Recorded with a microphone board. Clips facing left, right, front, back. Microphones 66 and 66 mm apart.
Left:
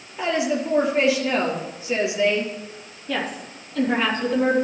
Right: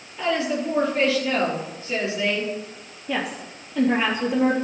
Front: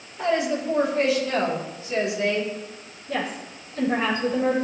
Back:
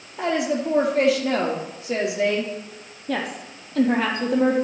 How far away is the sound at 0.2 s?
About 3.5 m.